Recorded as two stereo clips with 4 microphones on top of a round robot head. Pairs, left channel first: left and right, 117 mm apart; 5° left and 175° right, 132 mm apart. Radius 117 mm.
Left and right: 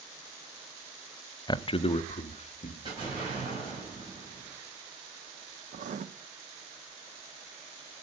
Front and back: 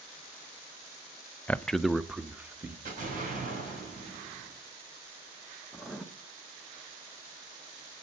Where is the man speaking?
75° left, 0.5 m; by 2.8 s 105° left, 1.1 m.